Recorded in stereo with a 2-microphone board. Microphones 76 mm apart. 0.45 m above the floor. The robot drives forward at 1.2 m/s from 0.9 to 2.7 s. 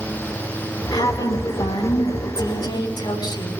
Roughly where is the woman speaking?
Left.